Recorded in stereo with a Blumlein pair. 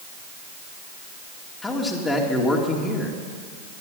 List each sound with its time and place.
1.6 s a man speaking: 5° left, 2.5 m